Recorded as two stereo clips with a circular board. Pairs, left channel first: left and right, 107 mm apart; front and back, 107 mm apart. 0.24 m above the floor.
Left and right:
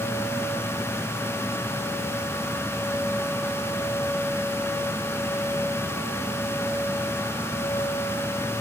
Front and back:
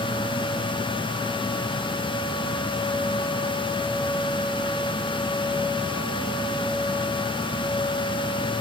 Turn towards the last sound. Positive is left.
No sound to turn to.